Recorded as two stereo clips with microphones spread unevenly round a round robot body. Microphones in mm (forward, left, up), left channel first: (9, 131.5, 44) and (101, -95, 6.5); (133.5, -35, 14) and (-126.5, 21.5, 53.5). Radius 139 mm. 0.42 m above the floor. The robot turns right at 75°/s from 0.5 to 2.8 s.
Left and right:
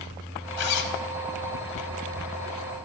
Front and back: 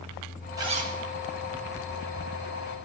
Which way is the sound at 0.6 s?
85° left.